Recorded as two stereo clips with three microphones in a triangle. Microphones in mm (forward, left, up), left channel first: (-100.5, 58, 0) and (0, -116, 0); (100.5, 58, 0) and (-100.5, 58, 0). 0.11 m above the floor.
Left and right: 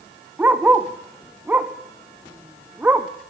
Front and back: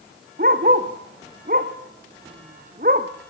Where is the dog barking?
140° right, 1.8 m.